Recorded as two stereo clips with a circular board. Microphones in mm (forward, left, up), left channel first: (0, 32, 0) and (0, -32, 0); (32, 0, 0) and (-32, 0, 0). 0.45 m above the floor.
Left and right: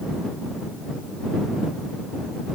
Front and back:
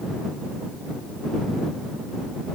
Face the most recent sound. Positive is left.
No sound to turn to.